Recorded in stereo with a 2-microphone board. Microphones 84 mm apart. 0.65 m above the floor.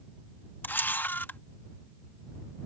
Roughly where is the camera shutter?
Left.